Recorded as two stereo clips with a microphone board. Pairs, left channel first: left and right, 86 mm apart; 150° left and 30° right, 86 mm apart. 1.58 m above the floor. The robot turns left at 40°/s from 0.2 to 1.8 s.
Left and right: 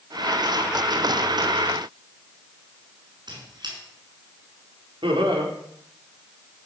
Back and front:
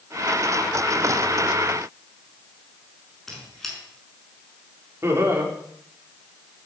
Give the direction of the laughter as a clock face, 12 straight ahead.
3 o'clock.